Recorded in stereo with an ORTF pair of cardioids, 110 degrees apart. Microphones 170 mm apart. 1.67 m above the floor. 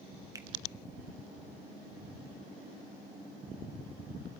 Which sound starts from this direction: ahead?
A finger snap, at 0.3 s.